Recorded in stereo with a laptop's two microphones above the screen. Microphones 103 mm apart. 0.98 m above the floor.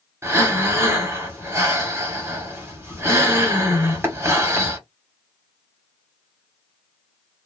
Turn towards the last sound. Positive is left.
turn(degrees=-25)  # may be behind; listen again after turning